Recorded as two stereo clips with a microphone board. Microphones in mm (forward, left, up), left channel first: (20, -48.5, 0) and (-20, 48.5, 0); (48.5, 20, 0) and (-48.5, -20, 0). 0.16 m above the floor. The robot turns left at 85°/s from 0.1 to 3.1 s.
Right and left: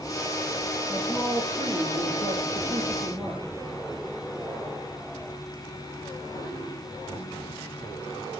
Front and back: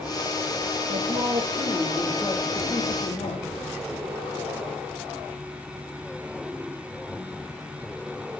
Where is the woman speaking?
130° right, 2.5 m; by 3.4 s 45° left, 2.5 m.